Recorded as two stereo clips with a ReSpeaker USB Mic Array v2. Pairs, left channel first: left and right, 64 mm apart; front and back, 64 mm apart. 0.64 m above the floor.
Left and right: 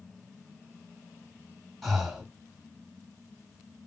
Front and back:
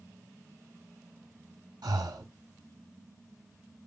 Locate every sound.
1.8 s breathing: 175° right, 0.9 m